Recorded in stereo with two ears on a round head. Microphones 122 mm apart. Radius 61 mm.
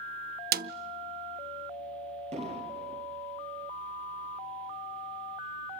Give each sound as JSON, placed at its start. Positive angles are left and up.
{"t": 0.5, "sound": "a snare drum", "side_deg": -75, "distance_m": 0.6}
{"t": 2.3, "sound": "an explosion", "side_deg": -50, "distance_m": 5.5}